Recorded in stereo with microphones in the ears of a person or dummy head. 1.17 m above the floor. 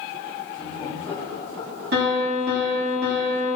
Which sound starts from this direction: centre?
Laughter, at 0.6 s.